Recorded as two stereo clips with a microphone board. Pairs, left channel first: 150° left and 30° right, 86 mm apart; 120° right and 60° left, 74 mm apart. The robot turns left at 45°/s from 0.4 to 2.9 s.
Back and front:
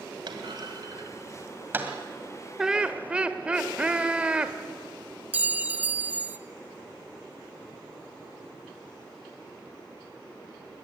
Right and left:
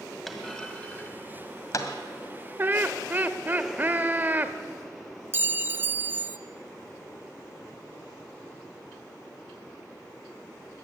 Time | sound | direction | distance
0.3 | a clunk | 30° right | 1.9 m
2.6 | laughter | 50° left | 0.9 m
5.3 | a clink | 25° left | 0.7 m